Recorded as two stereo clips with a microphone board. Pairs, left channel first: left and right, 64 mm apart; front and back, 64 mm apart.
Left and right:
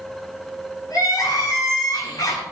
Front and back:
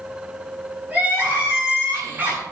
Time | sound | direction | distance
0.9 | crying | 115° left | 8 m